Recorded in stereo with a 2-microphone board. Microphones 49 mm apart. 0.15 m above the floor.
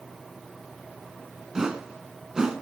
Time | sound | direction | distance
1.6 | a whoosh | 15° right (ahead or behind) | 1.6 m